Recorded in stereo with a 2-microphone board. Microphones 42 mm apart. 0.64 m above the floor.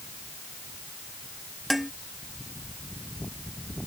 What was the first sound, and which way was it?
Dishes clattering, centre (ahead or behind).